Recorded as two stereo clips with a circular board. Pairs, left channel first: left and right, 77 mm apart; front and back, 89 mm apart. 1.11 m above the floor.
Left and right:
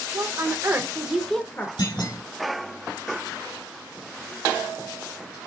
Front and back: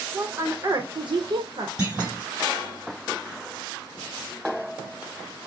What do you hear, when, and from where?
0.1 s a woman speaking: 115° right, 1.3 m; by 1.7 s 145° left, 1.0 m
1.8 s a clunk: 100° left, 3.5 m